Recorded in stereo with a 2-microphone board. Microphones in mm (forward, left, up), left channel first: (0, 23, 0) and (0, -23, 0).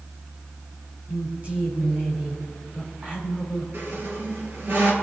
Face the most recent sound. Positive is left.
turn(degrees=-60)  # may be behind; listen again after turning